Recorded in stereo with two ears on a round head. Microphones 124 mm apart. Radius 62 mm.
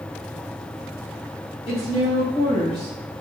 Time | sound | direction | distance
1.7 | a woman speaking | 35° left (ahead or behind) | 2.5 m